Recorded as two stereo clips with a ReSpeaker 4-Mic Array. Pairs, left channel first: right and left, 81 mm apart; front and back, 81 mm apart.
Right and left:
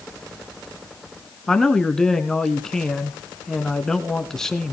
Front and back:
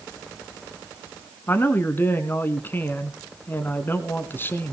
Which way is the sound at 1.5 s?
15° right.